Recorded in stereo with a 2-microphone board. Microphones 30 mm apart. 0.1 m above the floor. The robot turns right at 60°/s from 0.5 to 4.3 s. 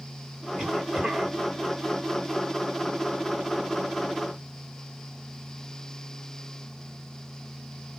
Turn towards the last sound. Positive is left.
turn(degrees=40)